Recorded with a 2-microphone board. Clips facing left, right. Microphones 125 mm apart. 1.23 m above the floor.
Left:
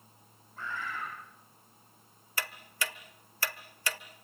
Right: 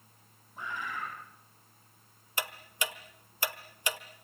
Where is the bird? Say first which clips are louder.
Even; 15° right (ahead or behind), 8.5 m.